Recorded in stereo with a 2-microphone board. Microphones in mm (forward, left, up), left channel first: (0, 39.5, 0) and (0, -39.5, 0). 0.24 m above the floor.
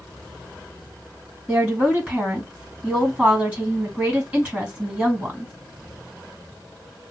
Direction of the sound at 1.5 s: 20° right (ahead or behind).